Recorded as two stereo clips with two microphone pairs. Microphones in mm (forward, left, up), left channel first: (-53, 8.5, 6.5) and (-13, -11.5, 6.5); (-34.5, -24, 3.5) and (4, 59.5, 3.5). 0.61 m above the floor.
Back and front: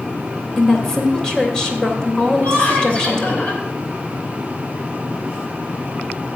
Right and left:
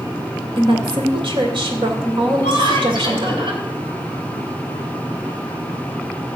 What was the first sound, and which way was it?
A woman speaking, 75° left.